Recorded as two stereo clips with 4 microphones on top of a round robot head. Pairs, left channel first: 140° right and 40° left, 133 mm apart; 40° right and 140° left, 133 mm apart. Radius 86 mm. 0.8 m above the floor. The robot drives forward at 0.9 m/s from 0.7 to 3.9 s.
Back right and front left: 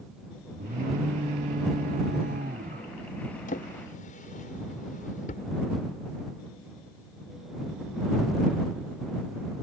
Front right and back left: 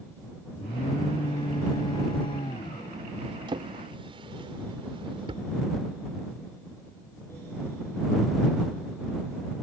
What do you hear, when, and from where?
0.6 s an alarm: 10° left; by 2.9 s 15° left
3.5 s a drawer: 165° right; by 5.5 s 170° right